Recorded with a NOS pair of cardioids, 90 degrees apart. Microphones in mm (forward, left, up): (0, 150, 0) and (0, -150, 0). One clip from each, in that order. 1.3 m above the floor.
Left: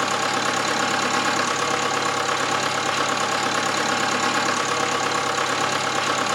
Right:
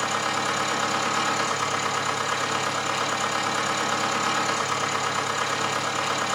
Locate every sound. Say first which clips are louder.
0.0 s a machine running: left 3 dB; 55° left, 2.5 m